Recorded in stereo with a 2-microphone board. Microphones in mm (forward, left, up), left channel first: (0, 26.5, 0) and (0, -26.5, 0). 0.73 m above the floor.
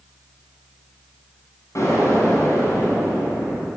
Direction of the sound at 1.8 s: 70° left (ahead or behind).